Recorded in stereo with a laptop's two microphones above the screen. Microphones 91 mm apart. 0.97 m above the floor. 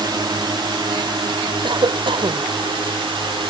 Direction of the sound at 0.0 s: 55° right (ahead or behind).